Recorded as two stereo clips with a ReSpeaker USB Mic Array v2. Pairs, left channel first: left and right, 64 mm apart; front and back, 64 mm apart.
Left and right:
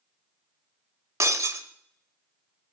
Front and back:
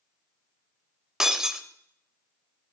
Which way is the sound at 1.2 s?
100° right.